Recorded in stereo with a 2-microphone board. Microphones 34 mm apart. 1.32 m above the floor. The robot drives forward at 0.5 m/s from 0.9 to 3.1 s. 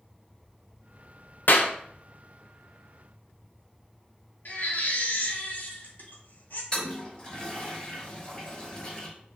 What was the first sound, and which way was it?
A clap, 65° left (ahead or behind).